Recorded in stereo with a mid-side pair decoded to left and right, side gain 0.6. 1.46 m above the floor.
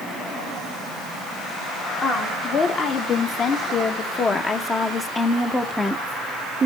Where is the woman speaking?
50° left, 2.5 m; by 6.7 s 35° right, 0.7 m.